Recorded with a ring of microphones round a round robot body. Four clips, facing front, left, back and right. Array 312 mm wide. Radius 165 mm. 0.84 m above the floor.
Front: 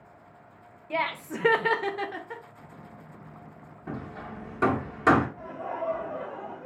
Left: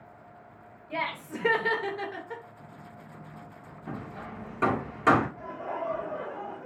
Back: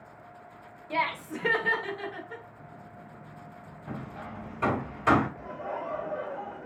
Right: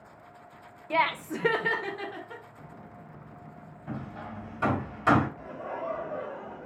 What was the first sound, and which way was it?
Laughter, 80° right.